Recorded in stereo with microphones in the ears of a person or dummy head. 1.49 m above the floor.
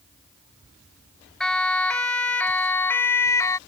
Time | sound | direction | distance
1.4 | a siren | 5° left (ahead or behind) | ?